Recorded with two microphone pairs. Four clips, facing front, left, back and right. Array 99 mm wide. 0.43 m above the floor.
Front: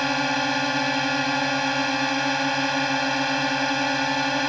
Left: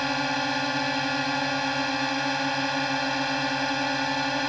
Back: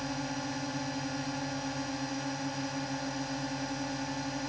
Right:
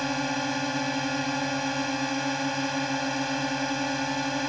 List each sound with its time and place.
0.0 s a drone: 25° left